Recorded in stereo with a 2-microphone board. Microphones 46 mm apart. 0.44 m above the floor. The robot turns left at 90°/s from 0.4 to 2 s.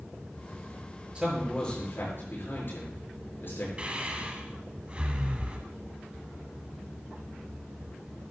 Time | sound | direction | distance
1.1 | a man speaking | 25° right (ahead or behind) | 7 m
3.8 | breathing | 30° right (ahead or behind) | 1.7 m